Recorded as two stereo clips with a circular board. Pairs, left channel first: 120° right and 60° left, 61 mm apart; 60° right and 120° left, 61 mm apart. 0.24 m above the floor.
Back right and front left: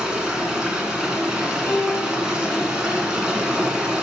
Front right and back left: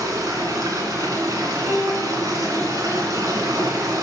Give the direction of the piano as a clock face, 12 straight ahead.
6 o'clock.